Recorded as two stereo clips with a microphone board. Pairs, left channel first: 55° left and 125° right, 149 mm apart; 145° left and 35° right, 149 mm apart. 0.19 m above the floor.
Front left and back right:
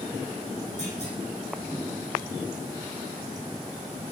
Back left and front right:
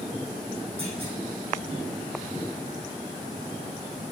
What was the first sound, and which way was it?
A clunk, 15° left.